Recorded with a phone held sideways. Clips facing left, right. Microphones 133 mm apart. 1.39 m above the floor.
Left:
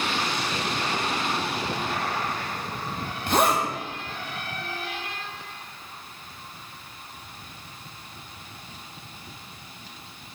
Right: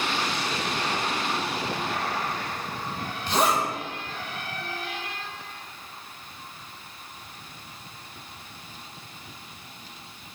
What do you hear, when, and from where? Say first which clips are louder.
3.3 s a zipper: left 2 dB; 50° left (ahead or behind), 0.6 m